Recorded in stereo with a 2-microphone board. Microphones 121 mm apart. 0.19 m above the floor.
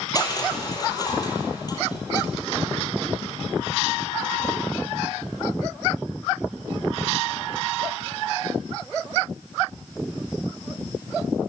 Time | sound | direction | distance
0.1 | crushing | 30° left (ahead or behind) | 6.5 m